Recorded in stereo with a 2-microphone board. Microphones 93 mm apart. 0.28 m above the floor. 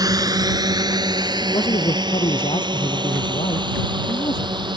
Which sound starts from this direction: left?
A man speaking, at 1.4 s.